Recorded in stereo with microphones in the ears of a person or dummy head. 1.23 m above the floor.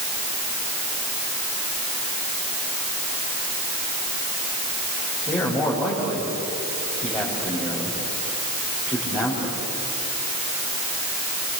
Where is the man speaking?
15° left (ahead or behind), 5 m.